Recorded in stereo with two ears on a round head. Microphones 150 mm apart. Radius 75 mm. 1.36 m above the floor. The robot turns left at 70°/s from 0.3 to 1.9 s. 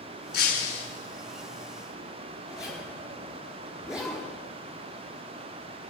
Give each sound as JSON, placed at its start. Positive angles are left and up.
{"t": 0.3, "sound": "breaking glass", "azimuth_deg": 65, "distance_m": 6.5}
{"t": 2.5, "sound": "a zipper", "side_deg": -5, "distance_m": 9.0}